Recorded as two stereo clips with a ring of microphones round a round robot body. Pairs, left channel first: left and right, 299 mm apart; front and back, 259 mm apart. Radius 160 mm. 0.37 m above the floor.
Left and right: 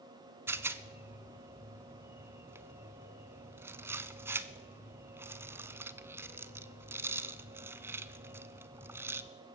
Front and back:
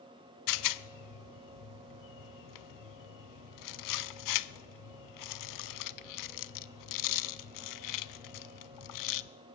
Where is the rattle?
10° right, 0.6 m.